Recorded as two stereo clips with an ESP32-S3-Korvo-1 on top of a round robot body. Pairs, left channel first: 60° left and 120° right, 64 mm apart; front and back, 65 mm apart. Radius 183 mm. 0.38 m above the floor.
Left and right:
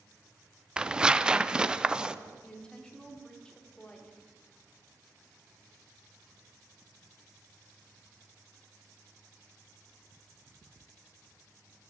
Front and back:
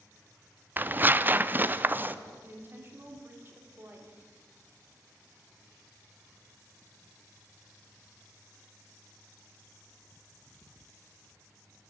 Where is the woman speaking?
135° left, 1.7 m.